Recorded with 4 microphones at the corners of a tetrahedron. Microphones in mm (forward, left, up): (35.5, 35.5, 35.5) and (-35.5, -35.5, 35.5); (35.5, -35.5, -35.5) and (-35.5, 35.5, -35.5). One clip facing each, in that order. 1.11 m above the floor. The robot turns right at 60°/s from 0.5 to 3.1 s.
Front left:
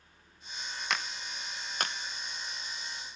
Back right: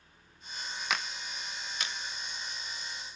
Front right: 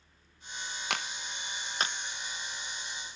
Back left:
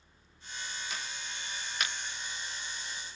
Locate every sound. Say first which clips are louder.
0.9 s a clap: even, front right 5 dB; 50° right, 0.9 m; by 1.9 s 15° left, 0.9 m